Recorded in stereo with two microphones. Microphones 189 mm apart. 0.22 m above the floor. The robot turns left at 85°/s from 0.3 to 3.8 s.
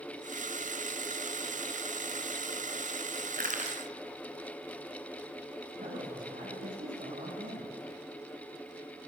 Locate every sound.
3.4 s crushing: 55° right (ahead or behind), 2.5 m; by 3.8 s 25° right (ahead or behind), 2.5 m
5.8 s a man speaking: 45° right (ahead or behind), 9.5 m